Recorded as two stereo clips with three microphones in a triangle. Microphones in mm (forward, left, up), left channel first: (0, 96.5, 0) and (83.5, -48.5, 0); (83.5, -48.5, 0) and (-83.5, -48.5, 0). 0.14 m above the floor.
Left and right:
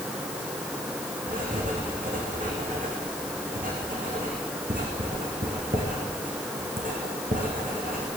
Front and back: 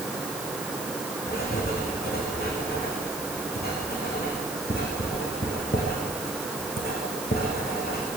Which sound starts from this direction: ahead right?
Writing, at 1.3 s.